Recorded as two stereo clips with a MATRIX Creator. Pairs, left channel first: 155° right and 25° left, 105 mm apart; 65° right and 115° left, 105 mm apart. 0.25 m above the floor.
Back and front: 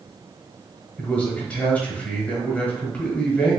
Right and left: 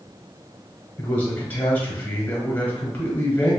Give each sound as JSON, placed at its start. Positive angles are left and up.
{"t": 1.0, "sound": "a man speaking", "azimuth_deg": -105, "distance_m": 1.1}